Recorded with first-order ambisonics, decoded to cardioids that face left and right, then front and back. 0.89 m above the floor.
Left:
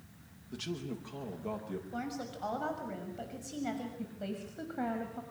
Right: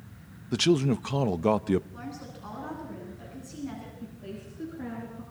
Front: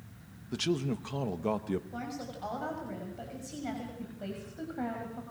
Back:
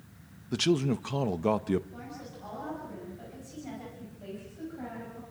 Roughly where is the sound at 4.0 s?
Ahead left.